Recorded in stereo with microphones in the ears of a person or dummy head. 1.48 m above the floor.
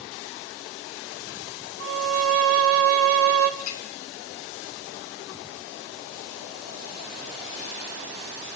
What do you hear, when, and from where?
1.8 s a violin: 80° right, 1.7 m
3.6 s a clink: 85° left, 4 m